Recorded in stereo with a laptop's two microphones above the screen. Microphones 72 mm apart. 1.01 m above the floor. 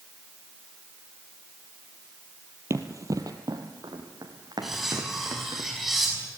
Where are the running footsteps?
40° right (ahead or behind), 1.5 m; by 5.6 s 65° right (ahead or behind), 4.5 m.